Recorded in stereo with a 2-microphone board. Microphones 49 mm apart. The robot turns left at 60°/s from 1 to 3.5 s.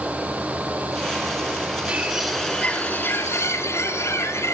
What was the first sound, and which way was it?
A bird, 160° right.